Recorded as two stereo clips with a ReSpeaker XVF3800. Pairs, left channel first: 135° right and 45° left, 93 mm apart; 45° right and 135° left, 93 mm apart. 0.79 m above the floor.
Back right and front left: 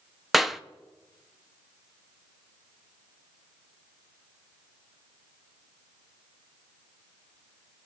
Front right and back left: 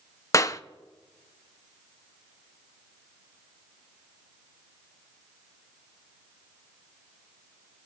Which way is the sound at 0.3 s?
45° right.